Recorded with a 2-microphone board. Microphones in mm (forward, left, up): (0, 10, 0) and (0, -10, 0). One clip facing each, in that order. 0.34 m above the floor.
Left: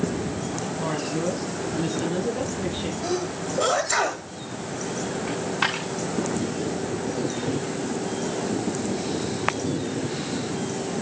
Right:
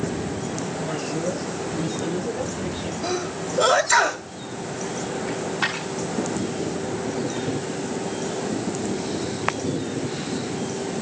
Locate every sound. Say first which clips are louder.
0.8 s a woman speaking: left 2 dB; 45° left (ahead or behind), 2 m; by 2.9 s 75° left (ahead or behind), 5 m
3.0 s a sneeze: right 2 dB; 20° right (ahead or behind), 1.4 m
5.3 s a dropped coin: left 1 dB; 25° left (ahead or behind), 6.5 m